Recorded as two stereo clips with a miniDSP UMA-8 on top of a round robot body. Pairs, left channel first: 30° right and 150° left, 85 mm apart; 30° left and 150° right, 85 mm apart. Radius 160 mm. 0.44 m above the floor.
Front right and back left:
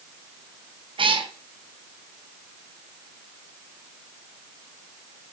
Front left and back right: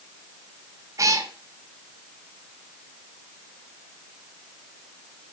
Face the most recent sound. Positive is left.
turn(degrees=160)